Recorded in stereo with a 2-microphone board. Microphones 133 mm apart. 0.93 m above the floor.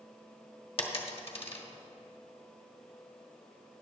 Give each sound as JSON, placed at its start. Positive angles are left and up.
{"t": 0.8, "sound": "a dropped coin", "side_deg": 45, "distance_m": 1.1}